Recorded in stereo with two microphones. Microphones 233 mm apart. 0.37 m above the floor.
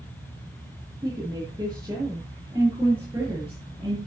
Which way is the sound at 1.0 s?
20° right (ahead or behind).